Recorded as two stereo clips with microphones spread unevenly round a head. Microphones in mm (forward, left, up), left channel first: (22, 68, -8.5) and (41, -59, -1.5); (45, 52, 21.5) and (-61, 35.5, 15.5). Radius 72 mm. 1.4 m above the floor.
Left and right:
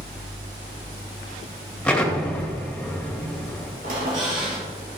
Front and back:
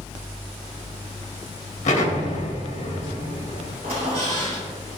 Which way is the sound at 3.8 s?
120° right.